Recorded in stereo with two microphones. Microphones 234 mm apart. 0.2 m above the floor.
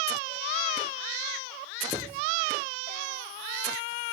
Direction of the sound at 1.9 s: 15° right (ahead or behind).